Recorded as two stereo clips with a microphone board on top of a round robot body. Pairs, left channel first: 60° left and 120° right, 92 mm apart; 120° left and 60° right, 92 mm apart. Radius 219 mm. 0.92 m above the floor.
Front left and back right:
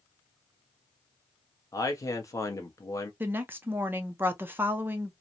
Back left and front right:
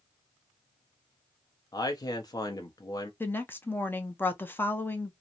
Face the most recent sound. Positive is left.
turn(degrees=180)